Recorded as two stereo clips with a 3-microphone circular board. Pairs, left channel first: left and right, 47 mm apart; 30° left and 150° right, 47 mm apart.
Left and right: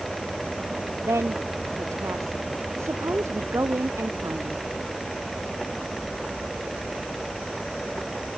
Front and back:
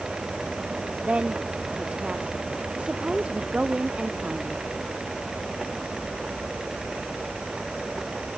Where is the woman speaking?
85° right.